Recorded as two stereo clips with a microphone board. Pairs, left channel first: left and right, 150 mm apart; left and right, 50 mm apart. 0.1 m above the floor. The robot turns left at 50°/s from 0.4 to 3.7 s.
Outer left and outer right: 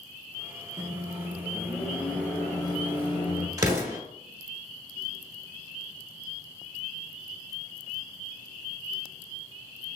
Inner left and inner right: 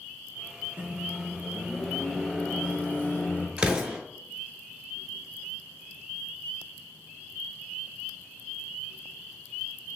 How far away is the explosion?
About 1.0 m.